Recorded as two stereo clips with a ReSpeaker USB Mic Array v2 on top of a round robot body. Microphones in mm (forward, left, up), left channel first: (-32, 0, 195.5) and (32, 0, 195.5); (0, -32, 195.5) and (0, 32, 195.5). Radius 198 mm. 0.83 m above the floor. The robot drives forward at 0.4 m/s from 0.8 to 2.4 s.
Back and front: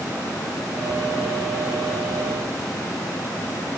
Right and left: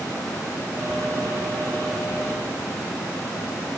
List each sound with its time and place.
Only background noise.